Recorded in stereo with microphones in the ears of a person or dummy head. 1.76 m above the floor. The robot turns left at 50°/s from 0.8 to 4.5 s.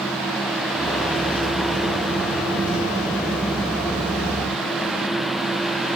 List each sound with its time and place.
Only background noise.